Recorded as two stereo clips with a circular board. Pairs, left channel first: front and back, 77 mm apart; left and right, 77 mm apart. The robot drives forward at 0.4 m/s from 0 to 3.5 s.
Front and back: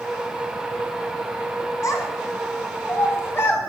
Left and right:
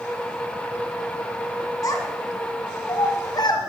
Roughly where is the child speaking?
Ahead left.